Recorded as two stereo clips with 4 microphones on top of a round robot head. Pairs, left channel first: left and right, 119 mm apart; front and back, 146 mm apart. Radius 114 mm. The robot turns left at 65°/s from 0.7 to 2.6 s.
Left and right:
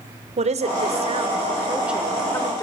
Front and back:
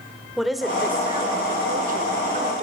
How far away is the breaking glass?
I don't hear breaking glass.